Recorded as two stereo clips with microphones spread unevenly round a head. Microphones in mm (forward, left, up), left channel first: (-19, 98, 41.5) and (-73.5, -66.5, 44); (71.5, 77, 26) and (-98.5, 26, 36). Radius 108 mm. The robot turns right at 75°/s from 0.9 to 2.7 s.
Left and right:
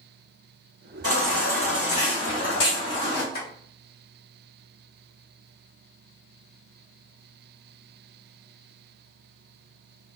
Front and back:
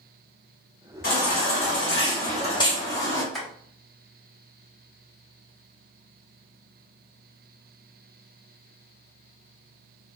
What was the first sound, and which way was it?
A baby crying, 35° right.